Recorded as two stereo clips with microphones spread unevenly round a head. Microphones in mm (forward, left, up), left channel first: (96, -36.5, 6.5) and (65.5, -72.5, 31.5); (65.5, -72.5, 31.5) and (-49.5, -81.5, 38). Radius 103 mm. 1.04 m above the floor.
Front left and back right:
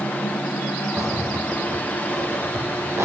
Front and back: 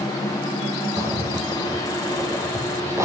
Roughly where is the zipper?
Right.